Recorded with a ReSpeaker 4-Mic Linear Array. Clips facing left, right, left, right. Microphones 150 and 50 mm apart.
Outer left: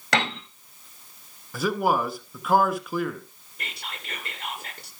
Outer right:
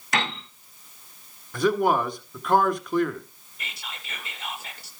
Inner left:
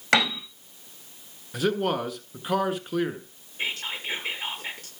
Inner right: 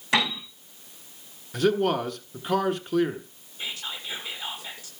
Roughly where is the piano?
Left.